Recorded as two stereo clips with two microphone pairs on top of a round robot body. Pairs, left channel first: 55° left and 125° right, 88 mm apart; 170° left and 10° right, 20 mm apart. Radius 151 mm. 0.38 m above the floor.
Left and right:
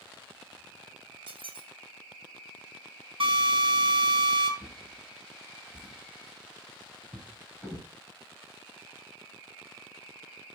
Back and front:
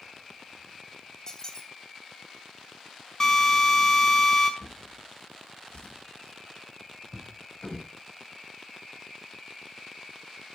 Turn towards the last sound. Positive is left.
turn(degrees=160)